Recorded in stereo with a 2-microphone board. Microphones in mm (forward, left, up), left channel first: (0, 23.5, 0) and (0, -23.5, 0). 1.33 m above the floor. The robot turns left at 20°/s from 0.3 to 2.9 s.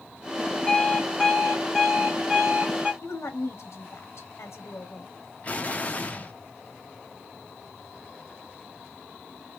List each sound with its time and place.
0.7 s an alarm clock: 20° left, 1.8 m; by 2.9 s 25° right, 1.8 m
3.0 s a woman speaking: 60° left (ahead or behind), 0.9 m
5.4 s an explosion: 30° left (ahead or behind), 0.7 m